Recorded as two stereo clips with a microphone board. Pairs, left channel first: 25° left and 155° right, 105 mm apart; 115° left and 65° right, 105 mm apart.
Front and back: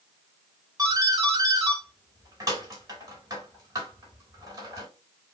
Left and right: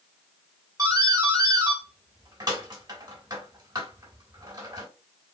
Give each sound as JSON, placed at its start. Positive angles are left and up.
{"t": 0.8, "sound": "a doorbell", "azimuth_deg": -110, "distance_m": 3.0}